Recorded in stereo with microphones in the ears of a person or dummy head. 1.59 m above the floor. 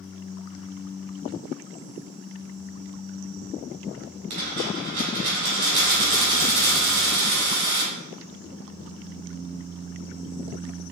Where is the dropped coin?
45° right (ahead or behind), 1.6 m.